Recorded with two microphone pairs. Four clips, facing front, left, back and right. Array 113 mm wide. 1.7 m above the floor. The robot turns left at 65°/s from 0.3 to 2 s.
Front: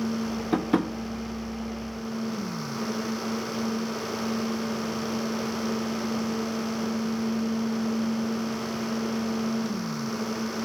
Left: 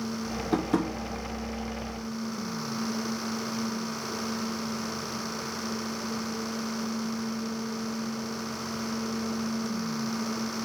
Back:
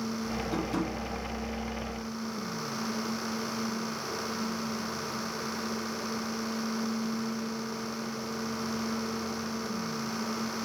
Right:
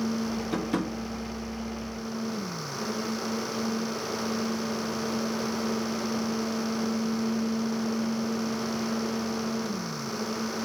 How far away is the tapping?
About 0.9 m.